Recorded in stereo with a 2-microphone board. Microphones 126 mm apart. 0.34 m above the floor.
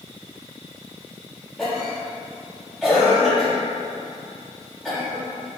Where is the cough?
5° left (ahead or behind), 1.0 m.